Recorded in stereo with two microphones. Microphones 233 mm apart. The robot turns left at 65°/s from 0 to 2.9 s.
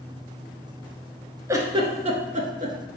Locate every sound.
1.5 s a giggle: 15° right (ahead or behind), 0.5 m; by 2.8 s 35° right (ahead or behind), 0.5 m